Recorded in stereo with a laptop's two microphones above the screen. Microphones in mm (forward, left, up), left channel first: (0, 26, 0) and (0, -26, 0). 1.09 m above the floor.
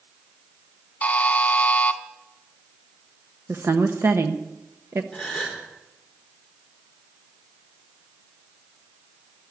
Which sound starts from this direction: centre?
A gasp, at 5.1 s.